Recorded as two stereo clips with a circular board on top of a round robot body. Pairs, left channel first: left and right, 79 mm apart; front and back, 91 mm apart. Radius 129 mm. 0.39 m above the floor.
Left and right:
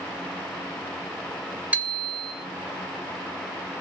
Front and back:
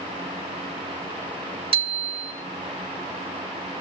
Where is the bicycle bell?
165° right, 2.5 m.